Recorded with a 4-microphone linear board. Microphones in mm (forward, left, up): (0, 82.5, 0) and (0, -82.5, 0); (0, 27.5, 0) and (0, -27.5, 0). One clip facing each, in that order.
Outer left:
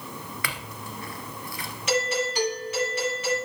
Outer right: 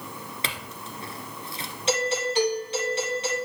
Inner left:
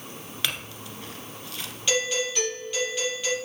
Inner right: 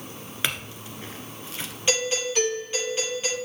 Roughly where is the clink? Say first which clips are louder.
Even, inner right 2 dB; right.